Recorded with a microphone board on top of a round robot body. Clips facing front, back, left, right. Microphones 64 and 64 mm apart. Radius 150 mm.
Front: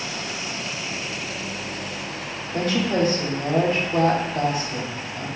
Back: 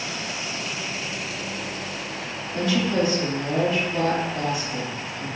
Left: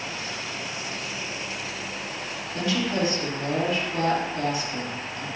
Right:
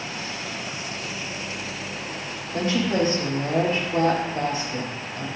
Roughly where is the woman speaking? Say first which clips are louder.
Front 1 dB, right 3 dB; ahead right.